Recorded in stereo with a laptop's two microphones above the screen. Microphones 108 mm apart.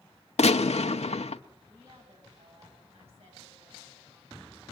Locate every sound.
0.4 s a gunshot: 85° left, 1.1 m
1.7 s a woman speaking: 65° right (ahead or behind), 9 m